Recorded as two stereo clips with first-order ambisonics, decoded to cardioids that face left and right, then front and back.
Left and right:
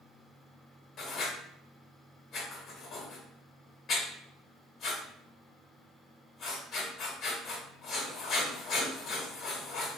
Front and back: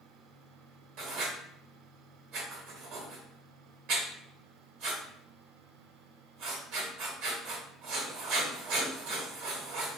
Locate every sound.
1.0 s writing: 155° left, 1.4 m